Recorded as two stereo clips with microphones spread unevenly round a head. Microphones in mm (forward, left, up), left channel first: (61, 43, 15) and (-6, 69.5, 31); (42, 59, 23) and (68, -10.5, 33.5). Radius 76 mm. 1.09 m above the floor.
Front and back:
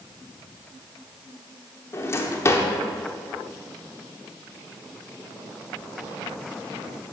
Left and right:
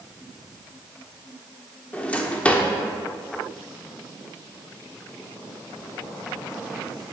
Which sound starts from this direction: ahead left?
A drawer, at 1.9 s.